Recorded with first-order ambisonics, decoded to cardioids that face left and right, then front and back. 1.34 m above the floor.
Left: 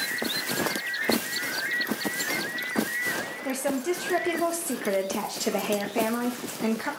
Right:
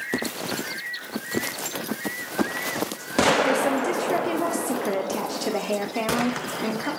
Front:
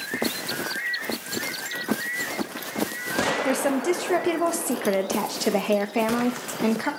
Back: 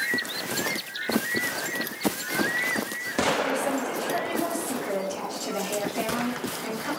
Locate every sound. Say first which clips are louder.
3.4 s a woman speaking: right 6 dB, front 3 dB; 5° right, 0.5 m